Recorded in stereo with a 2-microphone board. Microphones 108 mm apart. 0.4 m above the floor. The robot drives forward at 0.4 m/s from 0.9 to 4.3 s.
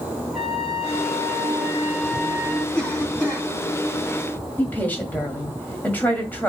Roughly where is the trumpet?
Centre.